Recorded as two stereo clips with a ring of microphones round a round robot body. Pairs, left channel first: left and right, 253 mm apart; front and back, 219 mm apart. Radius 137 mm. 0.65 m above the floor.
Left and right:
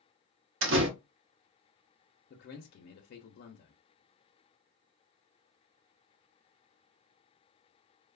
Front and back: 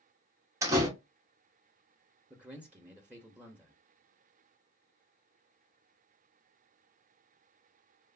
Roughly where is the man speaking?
Left.